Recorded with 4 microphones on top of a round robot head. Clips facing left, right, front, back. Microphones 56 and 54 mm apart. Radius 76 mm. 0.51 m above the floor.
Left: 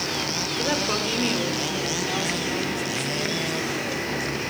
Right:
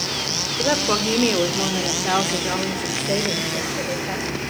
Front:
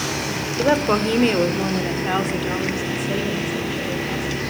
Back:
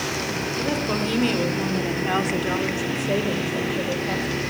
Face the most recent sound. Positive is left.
turn(degrees=-140)